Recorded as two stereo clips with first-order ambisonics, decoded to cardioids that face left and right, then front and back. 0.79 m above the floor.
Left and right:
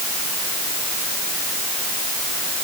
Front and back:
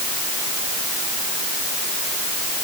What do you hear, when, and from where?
Only background noise.